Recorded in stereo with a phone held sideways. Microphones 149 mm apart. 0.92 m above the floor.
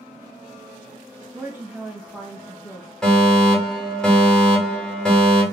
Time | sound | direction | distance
1.3 | a woman speaking | 20° right (ahead or behind) | 1.0 m
3.0 | a fire alarm | 5° left (ahead or behind) | 1.8 m